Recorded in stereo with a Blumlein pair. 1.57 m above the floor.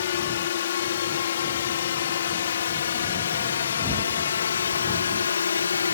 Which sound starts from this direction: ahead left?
A drone, at 0.0 s.